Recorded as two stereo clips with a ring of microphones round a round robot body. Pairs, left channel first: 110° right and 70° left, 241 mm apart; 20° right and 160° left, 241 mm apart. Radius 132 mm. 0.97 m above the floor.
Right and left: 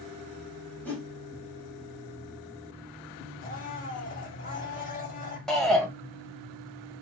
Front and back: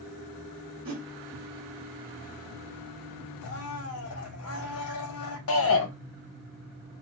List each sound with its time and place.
0.8 s a whoosh: 165° left, 1.3 m
3.4 s a blender: 55° right, 1.1 m
5.5 s a shout: 25° right, 1.4 m